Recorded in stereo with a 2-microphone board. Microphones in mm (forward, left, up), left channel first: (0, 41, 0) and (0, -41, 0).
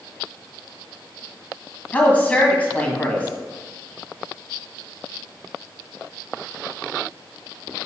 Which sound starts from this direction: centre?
A woman speaking, at 1.9 s.